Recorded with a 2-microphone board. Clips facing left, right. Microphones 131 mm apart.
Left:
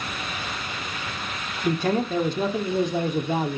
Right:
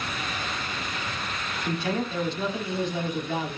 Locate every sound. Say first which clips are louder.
1.6 s a man speaking: left 6 dB; 45° left (ahead or behind), 1.6 m